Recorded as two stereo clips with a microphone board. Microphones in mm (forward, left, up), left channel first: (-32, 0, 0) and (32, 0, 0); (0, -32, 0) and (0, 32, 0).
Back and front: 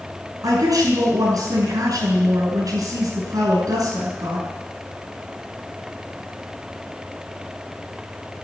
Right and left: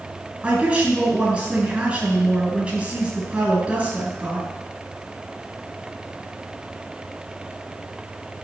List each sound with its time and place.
0.4 s a woman speaking: 20° left, 5 m